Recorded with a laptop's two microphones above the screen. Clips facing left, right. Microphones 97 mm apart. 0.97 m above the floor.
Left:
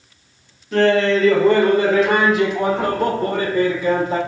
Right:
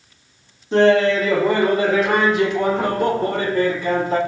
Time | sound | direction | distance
0.7 | laughter | 25° right (ahead or behind) | 0.5 m